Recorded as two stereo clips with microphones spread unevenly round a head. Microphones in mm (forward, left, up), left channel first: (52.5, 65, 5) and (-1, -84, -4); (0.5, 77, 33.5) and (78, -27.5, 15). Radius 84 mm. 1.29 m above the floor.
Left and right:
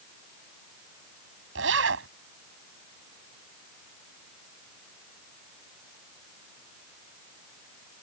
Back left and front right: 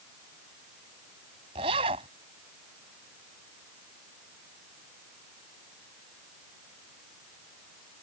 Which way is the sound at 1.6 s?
115° right.